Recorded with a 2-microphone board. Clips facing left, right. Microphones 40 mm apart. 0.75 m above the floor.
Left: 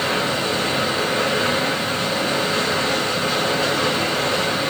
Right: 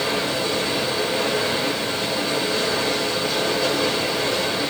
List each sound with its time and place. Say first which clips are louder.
0.0 s running water: left 2 dB; 70° left (ahead or behind), 2.5 m